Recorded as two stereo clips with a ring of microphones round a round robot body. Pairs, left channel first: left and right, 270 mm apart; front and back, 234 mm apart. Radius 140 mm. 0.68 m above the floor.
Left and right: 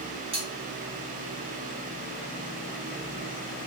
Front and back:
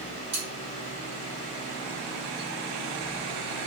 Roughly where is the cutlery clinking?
Behind.